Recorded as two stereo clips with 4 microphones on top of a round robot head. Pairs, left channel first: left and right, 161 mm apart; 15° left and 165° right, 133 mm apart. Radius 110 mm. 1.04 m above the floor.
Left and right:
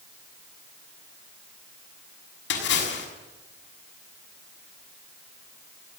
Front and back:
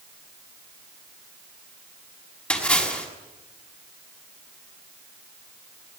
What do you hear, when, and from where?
2.5 s a splash: 95° left, 6.5 m